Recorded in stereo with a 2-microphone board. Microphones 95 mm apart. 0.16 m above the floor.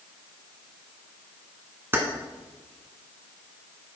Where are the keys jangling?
25° right (ahead or behind), 1.3 m.